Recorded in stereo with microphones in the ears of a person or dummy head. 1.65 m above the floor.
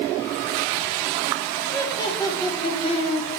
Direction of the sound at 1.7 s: 15° left (ahead or behind).